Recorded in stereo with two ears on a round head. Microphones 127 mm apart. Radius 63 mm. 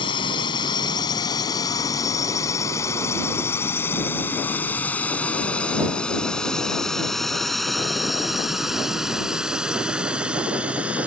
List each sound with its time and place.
0.0 s a drone: 35° left (ahead or behind); by 11.1 s 10° right (ahead or behind)